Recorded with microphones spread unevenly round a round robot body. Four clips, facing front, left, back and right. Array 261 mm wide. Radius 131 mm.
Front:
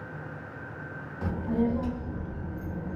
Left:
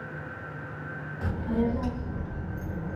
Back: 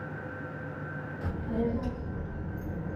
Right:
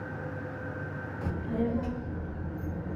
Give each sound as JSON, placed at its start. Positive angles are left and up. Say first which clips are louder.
{"t": 1.2, "sound": "a child speaking", "louder": "left 3 dB, front 4 dB", "azimuth_deg": 25, "distance_m": 0.7}